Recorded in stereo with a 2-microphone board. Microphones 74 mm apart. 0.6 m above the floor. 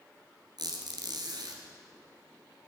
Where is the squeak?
70° right (ahead or behind), 1.6 m.